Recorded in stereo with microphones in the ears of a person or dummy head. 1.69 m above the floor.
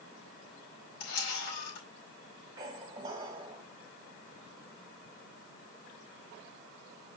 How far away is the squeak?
About 1.5 m.